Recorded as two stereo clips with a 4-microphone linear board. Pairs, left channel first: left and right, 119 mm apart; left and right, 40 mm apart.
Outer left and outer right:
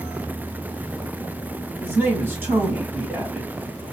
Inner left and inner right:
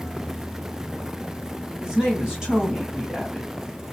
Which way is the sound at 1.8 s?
20° right (ahead or behind).